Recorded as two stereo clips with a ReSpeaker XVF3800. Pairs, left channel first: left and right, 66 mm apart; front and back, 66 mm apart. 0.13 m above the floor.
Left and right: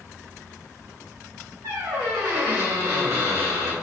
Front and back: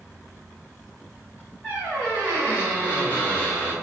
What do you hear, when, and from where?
1.6 s a squeak: 120° right, 1.8 m